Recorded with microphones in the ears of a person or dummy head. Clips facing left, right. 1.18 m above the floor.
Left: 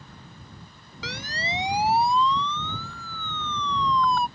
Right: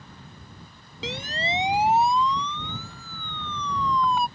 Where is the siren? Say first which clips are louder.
Right 4 dB; 20° right (ahead or behind); by 4.3 s 10° right (ahead or behind).